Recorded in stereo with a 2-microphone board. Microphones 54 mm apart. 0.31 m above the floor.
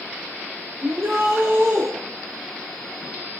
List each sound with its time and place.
0.8 s a shout: 65° right (ahead or behind), 7 m; by 1.9 s 60° right (ahead or behind), 6.5 m